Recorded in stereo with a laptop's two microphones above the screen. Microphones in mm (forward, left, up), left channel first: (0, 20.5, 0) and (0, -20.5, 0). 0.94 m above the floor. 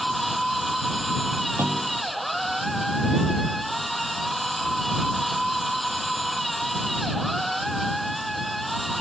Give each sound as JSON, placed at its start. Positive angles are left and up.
{"t": 0.0, "sound": "a machine running", "side_deg": 0}
{"t": 1.6, "sound": "a clunk", "side_deg": -85}